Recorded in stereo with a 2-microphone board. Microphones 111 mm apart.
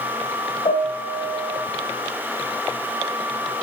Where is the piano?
60° left (ahead or behind), 2.5 m.